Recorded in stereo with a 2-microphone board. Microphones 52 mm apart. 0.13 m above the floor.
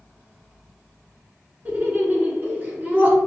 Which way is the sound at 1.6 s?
35° right (ahead or behind).